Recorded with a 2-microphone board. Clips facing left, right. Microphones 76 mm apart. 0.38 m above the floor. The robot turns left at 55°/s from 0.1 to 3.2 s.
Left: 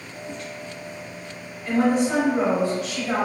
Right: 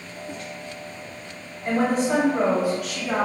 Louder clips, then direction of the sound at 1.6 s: Left 1 dB; 115° right.